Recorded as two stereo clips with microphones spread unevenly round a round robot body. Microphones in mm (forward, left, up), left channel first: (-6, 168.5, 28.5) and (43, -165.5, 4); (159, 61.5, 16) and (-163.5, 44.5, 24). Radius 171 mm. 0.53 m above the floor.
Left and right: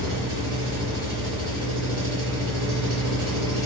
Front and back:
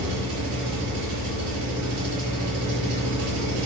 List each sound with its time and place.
0.0 s an engine running: 140° right, 4.5 m